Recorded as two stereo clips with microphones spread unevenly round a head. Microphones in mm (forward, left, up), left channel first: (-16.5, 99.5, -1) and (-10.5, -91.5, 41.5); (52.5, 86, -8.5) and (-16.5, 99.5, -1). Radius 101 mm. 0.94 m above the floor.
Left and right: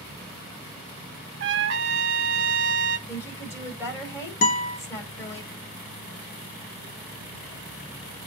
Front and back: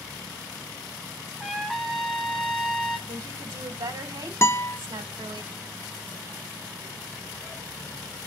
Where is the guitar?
40° left, 1.3 m.